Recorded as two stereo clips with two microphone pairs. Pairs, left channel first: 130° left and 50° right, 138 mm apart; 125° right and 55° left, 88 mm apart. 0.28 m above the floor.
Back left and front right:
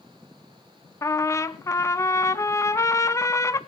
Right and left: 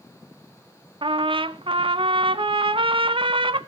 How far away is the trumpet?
About 0.7 m.